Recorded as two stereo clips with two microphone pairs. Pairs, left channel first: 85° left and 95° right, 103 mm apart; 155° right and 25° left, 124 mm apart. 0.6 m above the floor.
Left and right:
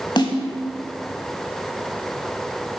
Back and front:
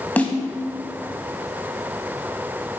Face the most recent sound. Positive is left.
turn(degrees=125)